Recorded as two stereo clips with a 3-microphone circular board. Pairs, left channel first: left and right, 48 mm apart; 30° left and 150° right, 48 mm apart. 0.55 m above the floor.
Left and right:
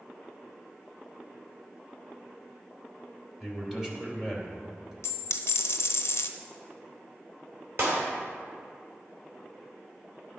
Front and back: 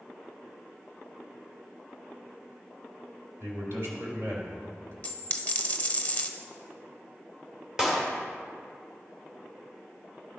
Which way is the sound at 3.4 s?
170° right.